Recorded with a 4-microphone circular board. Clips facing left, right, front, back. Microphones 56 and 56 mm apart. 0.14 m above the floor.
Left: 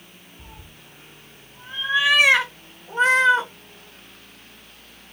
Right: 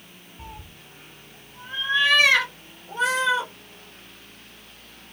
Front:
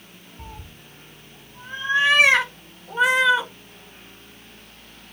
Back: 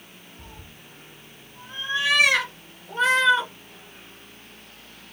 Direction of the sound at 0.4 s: 30° right.